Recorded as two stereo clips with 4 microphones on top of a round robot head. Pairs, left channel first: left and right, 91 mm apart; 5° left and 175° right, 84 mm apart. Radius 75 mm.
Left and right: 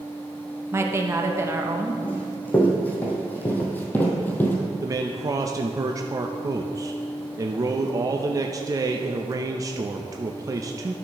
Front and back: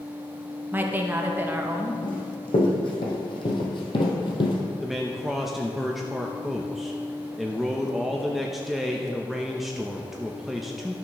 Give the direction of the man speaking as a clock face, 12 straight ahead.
3 o'clock.